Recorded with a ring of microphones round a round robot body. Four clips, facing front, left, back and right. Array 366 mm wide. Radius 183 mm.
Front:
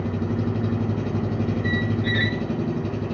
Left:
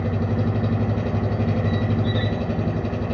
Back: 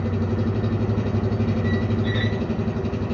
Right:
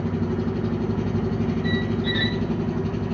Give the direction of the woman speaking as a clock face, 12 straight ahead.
I don't hear a woman speaking.